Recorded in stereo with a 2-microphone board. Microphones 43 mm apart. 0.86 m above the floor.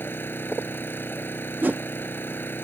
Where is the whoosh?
45° right (ahead or behind).